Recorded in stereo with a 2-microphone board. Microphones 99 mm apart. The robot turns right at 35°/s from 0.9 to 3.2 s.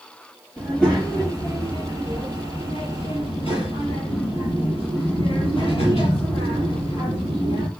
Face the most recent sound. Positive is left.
turn(degrees=95)